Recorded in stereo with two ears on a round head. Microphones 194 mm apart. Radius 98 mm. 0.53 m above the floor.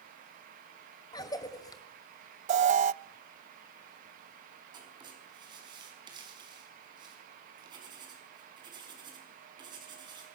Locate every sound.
1.1 s a cough: 20° left (ahead or behind), 2.5 m
2.5 s an alarm: 35° right (ahead or behind), 0.5 m
4.7 s writing: 20° right (ahead or behind), 5 m